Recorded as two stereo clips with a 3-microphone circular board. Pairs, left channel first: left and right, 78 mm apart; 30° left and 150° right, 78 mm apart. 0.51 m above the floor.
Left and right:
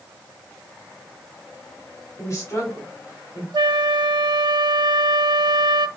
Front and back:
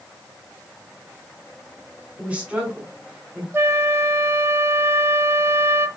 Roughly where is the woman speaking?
Behind left.